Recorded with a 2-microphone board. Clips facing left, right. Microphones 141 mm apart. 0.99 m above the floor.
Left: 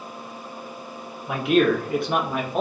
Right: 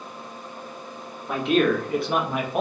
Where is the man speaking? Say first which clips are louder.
Left 2 dB; 5° left (ahead or behind), 1.7 m; by 2.6 s 10° right (ahead or behind), 1.1 m.